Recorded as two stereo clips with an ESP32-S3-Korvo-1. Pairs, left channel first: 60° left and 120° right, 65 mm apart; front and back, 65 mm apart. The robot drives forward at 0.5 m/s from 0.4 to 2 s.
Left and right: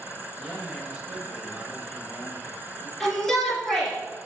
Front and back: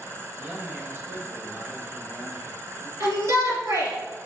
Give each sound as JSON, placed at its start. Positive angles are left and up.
{"t": 0.4, "sound": "a man speaking", "azimuth_deg": 180, "distance_m": 1.7}
{"t": 3.0, "sound": "a shout", "azimuth_deg": 150, "distance_m": 3.5}